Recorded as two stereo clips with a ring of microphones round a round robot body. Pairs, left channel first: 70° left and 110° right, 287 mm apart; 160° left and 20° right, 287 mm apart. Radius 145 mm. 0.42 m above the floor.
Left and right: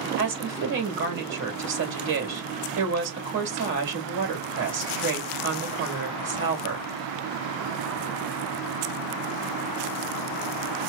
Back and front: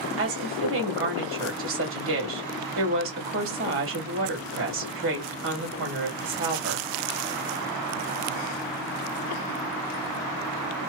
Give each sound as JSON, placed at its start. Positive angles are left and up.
{"t": 0.2, "sound": "a woman speaking", "azimuth_deg": -65, "distance_m": 2.5}